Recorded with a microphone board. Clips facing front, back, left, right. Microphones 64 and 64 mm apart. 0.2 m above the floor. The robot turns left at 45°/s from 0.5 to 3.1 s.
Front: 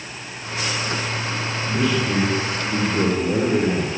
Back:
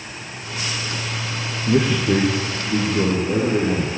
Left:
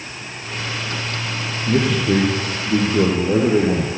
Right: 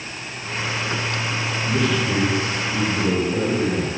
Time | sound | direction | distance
1.7 | a man speaking | 145° left | 7 m